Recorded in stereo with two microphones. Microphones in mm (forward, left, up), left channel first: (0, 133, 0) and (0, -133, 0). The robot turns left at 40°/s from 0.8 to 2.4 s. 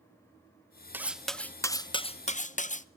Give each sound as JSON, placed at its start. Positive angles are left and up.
{"t": 0.9, "sound": "cutlery clinking", "azimuth_deg": -170, "distance_m": 0.7}